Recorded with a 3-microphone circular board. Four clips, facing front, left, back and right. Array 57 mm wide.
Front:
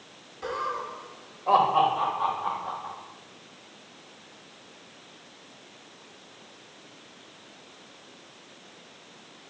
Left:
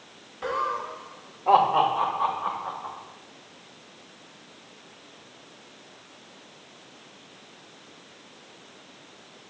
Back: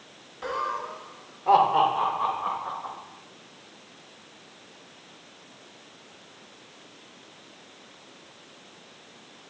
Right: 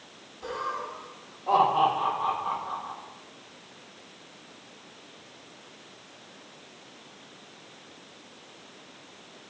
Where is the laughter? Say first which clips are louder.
Left 5 dB, back 1 dB; 125° left, 1.4 m; by 2.9 s 140° left, 5 m.